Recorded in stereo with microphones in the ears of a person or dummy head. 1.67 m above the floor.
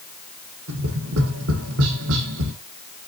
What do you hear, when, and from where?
0.7 s tapping: 70° right (ahead or behind), 1.5 m